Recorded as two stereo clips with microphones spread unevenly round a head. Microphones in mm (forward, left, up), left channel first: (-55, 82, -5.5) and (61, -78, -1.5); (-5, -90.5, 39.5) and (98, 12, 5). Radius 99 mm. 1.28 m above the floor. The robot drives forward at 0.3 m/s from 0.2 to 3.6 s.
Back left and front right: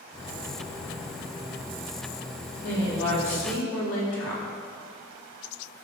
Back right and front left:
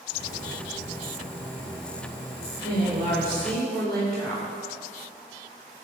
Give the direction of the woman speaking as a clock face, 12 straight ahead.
7 o'clock.